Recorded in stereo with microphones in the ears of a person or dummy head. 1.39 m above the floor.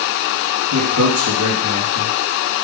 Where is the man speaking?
65° right (ahead or behind), 1.2 m.